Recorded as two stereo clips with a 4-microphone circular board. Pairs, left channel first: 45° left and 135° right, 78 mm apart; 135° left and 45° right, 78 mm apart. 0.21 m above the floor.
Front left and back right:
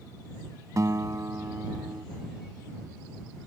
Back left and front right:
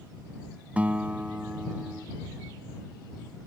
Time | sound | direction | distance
0.8 | a guitar | 110° right | ?